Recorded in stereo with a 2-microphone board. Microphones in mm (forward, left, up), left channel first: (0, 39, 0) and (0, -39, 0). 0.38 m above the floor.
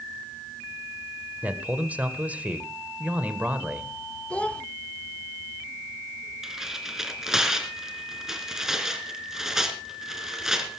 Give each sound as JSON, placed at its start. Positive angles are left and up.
{"t": 1.4, "sound": "a man speaking", "side_deg": -20, "distance_m": 1.6}
{"t": 4.3, "sound": "a child speaking", "side_deg": 15, "distance_m": 0.7}
{"t": 6.4, "sound": "tearing paper", "side_deg": -5, "distance_m": 3.0}